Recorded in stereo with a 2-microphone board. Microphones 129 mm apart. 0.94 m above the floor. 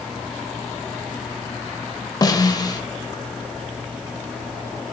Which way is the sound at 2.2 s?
30° left (ahead or behind).